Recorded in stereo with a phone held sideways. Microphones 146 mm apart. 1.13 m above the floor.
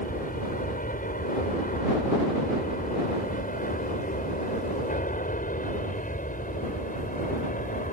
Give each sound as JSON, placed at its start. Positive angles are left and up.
{"t": 0.0, "sound": "an aircraft", "side_deg": 70}